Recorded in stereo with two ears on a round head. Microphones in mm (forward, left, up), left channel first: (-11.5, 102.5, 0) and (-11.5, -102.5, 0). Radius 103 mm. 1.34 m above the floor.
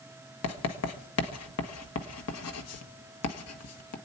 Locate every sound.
0.4 s writing: 70° left (ahead or behind), 1.5 m